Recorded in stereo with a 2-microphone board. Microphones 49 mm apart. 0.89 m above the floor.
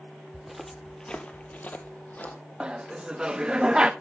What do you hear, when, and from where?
0.3 s footsteps: 5° right (ahead or behind), 1.2 m; by 2.4 s 40° left (ahead or behind), 1.6 m
2.6 s laughter: 20° right (ahead or behind), 0.7 m